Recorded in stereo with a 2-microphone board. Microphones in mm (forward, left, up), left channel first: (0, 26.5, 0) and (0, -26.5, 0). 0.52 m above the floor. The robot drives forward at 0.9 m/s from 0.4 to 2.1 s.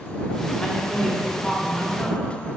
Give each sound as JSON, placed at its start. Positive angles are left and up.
{"t": 0.6, "sound": "a woman speaking", "side_deg": 10, "distance_m": 1.2}